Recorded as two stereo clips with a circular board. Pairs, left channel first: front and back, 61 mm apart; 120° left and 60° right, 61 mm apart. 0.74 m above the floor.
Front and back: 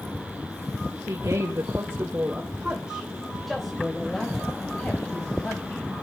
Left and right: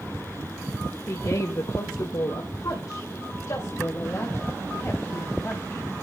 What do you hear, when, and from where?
1.1 s a woman speaking: 150° left, 2.5 m; by 5.8 s 60° left, 5 m